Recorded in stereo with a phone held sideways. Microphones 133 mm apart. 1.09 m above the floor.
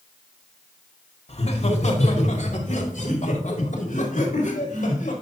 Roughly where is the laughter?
Left.